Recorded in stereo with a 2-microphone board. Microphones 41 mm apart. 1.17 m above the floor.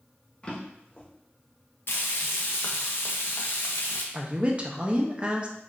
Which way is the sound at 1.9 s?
60° left (ahead or behind).